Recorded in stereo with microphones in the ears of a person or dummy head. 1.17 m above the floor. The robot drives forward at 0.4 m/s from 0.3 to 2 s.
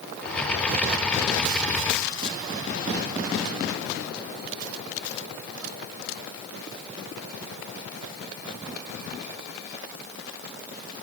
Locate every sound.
Only background noise.